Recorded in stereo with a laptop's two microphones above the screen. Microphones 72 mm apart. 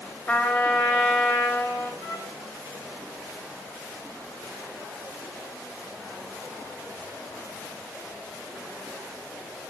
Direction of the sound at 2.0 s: 45° left (ahead or behind).